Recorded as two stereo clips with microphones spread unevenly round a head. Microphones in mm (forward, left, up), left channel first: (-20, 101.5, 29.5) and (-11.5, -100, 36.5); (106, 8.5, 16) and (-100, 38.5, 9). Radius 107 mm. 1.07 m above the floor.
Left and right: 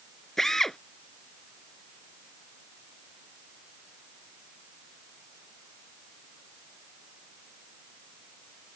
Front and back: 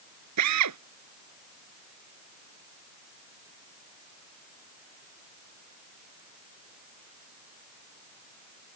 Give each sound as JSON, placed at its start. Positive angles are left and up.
{"t": 0.4, "sound": "a drill", "azimuth_deg": 180}